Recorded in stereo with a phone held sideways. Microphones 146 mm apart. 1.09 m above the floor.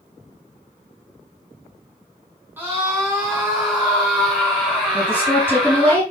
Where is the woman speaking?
15° left (ahead or behind), 6 m.